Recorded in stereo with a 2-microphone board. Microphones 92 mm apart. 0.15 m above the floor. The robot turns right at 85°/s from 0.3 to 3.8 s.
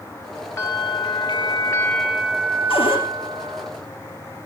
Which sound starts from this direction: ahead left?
A bell, at 0.6 s.